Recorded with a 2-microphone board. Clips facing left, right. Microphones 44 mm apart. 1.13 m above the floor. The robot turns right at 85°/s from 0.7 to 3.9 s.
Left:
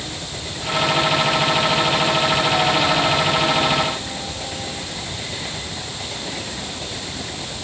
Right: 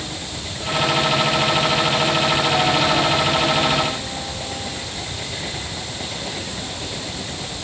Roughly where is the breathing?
I don't hear breathing.